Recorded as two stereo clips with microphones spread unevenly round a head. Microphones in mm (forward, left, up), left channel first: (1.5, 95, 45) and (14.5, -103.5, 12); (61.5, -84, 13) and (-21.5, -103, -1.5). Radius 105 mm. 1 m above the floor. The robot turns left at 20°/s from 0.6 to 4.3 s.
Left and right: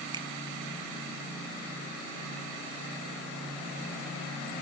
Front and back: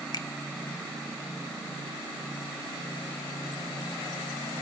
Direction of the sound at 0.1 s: 30° right.